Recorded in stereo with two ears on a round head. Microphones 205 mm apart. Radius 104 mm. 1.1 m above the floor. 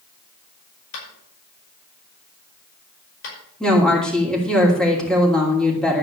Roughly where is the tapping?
Left.